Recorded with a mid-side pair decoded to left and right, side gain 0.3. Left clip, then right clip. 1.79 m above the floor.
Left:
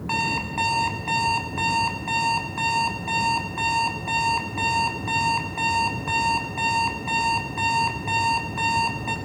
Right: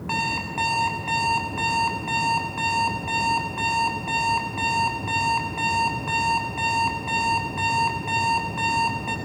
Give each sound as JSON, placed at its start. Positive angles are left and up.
{"t": 0.1, "sound": "an alarm clock", "azimuth_deg": 10, "distance_m": 7.5}